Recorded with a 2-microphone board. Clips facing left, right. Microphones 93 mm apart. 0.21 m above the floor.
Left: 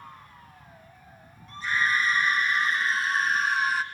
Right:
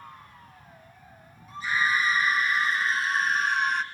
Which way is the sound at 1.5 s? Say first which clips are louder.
Even; 5° right (ahead or behind).